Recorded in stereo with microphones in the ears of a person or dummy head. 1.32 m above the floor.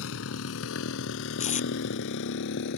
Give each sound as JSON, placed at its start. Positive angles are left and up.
{"t": 0.0, "sound": "a motorcycle", "side_deg": 75}
{"t": 1.4, "sound": "tape being pulled", "side_deg": 50}